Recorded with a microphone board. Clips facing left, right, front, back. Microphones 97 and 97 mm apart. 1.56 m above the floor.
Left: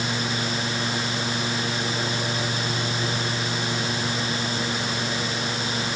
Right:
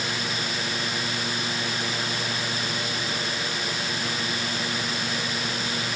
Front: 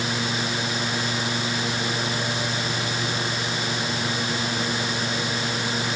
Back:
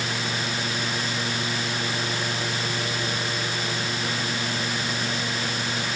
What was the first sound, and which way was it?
Only background noise.